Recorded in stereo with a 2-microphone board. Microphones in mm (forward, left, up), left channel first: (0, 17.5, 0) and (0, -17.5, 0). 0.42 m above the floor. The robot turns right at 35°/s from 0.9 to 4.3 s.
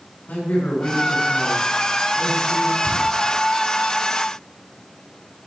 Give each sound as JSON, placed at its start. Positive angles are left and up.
{"t": 0.3, "sound": "a man speaking", "azimuth_deg": 120, "distance_m": 4.5}
{"t": 2.8, "sound": "a cupboard door", "side_deg": 60, "distance_m": 4.5}